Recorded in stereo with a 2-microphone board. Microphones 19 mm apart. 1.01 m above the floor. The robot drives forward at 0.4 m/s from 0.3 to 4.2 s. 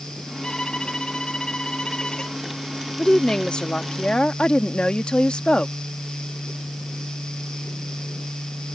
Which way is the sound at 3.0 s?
50° left (ahead or behind).